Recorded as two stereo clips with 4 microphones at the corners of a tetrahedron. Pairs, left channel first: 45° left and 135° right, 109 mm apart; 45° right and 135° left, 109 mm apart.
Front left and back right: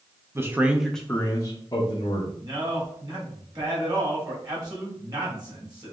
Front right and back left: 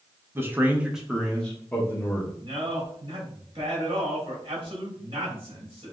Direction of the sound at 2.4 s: 175° left.